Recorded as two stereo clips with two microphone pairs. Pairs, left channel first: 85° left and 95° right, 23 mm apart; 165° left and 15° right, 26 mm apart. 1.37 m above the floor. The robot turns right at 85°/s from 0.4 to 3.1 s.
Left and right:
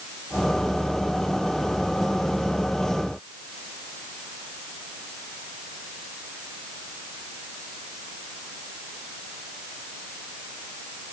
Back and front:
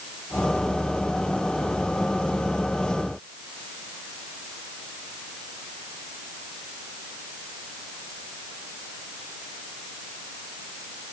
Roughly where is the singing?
I don't hear singing.